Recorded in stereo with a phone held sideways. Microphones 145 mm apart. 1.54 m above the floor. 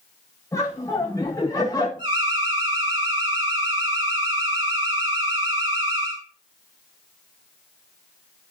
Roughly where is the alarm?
Right.